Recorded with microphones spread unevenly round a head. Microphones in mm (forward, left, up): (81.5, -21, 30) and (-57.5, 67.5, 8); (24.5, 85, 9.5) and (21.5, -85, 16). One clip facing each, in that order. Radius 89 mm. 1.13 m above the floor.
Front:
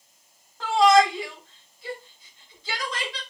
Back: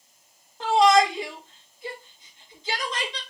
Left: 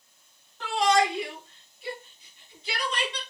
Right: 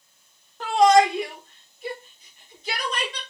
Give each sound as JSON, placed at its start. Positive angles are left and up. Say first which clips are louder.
{"t": 0.6, "sound": "a shout", "louder": "even, right 7 dB", "azimuth_deg": -145, "distance_m": 1.3}